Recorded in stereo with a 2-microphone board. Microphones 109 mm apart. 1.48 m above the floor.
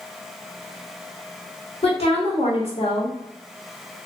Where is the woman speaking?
75° left (ahead or behind), 1.4 m.